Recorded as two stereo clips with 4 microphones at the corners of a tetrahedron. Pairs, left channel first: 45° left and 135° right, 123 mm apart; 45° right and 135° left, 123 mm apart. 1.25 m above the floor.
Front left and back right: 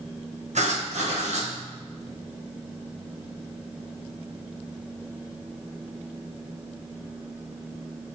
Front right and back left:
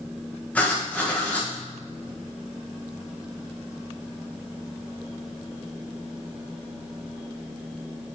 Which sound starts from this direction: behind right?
Writing, at 0.6 s.